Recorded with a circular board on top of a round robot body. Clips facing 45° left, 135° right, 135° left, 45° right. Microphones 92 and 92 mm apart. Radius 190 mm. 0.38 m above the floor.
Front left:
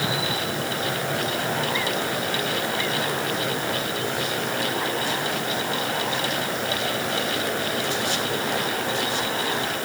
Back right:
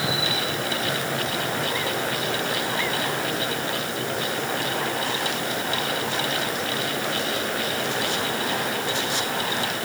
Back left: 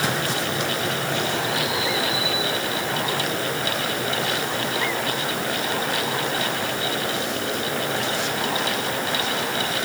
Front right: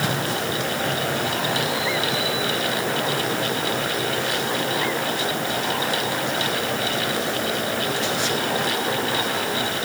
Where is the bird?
No bird in this recording.